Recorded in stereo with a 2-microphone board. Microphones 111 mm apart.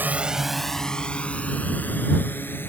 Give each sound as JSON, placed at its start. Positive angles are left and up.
{"t": 0.0, "sound": "a drone", "side_deg": -15}